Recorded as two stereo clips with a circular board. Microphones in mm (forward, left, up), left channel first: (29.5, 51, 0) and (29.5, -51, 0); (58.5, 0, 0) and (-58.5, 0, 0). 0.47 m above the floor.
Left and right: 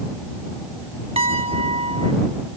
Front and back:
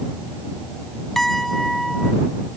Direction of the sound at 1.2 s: 90° right.